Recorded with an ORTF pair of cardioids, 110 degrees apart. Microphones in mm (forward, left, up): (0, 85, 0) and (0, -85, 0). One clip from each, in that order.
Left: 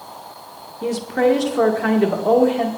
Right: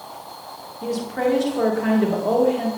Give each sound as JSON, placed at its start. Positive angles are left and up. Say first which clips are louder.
{"t": 0.8, "sound": "a woman speaking", "louder": "left 5 dB", "azimuth_deg": 30, "distance_m": 1.9}